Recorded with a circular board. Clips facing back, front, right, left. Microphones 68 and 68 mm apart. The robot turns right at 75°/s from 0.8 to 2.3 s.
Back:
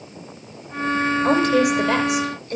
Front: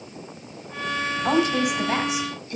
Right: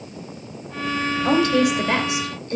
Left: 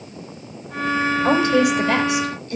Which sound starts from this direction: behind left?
A woman speaking, at 1.2 s.